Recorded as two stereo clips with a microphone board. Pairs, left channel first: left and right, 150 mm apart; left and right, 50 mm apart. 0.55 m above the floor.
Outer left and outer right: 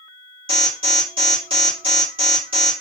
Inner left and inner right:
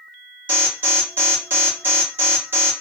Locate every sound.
0.5 s an alarm: 35° right (ahead or behind), 2 m